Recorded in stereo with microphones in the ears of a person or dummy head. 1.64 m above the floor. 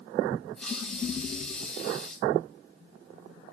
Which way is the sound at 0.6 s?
5° left (ahead or behind).